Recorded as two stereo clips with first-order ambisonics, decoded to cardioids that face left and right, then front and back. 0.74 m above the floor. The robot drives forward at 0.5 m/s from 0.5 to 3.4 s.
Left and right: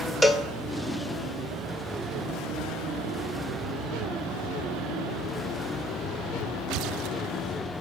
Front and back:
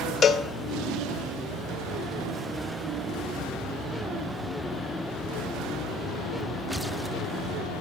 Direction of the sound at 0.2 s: 5° left.